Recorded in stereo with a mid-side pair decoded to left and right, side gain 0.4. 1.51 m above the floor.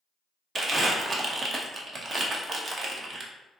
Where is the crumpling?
50° right, 0.8 m.